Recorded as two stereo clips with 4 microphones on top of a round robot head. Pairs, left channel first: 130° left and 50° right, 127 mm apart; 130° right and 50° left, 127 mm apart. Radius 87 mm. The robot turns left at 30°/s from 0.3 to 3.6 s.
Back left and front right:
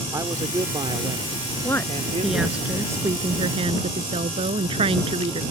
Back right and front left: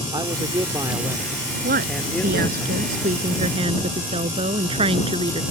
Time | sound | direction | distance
0.1 | a man speaking | 5° left | ?
1.6 | a woman speaking | 60° left | ?